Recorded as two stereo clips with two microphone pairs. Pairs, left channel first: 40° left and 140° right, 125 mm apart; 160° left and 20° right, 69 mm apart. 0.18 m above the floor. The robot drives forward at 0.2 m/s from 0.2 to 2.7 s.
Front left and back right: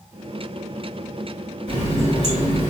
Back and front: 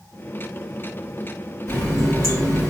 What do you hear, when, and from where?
1.7 s a running tap: 150° right, 2.0 m; by 2.7 s 155° right, 2 m